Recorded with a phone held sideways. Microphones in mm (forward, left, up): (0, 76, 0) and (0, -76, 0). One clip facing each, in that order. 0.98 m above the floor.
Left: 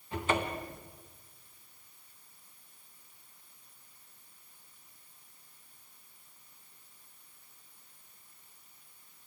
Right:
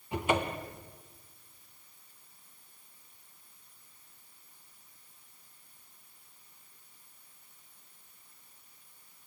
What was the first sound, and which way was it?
A cupboard door, 15° right (ahead or behind).